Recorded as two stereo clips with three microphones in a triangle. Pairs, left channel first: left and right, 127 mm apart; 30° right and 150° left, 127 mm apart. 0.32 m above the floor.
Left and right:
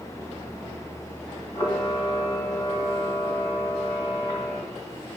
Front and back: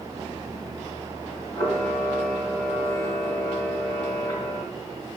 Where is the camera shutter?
25° left, 2.5 m.